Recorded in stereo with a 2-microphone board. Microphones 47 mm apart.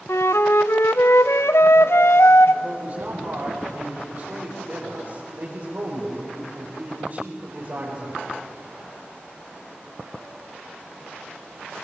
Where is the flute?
80° left, 0.6 m.